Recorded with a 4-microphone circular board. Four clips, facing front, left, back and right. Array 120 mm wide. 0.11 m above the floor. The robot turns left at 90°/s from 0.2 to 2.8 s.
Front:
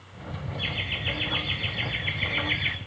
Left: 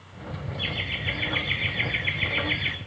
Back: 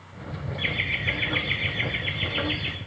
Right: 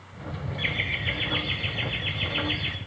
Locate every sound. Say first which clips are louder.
0.6 s laughter: right 3 dB, back 6 dB; 135° right, 2 m; by 2.8 s 25° left, 2 m